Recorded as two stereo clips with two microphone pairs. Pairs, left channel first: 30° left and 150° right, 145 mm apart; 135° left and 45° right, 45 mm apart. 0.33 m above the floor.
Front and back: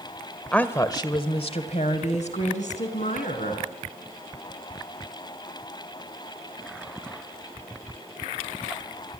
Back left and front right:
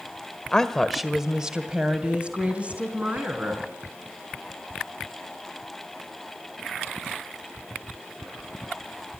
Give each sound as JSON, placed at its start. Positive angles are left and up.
{"t": 0.5, "sound": "a woman speaking", "azimuth_deg": 95, "distance_m": 1.1}